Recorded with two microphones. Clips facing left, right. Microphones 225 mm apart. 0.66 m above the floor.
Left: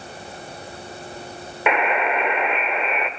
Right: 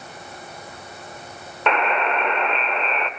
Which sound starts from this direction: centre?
A buzzer, at 1.7 s.